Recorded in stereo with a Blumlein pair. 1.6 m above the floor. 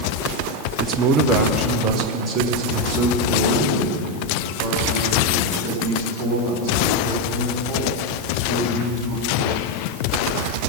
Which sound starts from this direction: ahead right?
A man speaking, at 0.8 s.